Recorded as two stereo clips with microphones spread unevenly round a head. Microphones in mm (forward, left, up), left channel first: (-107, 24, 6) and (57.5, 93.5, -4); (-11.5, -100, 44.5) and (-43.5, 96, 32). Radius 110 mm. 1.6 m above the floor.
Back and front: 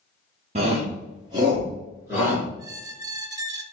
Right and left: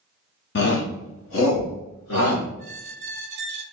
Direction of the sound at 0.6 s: 40° right.